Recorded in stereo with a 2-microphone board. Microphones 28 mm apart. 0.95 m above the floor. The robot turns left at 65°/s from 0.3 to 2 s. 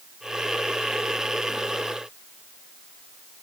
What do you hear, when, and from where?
Only background noise.